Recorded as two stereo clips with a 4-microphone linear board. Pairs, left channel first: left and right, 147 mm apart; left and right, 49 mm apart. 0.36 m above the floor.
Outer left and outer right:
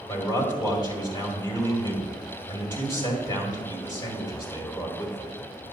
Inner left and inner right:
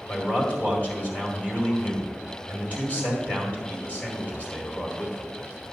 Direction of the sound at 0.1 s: 25° left (ahead or behind).